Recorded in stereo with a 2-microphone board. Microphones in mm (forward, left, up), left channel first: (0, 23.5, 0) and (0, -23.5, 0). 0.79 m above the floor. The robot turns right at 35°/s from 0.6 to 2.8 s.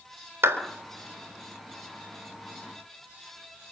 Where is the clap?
60° right (ahead or behind), 4 m.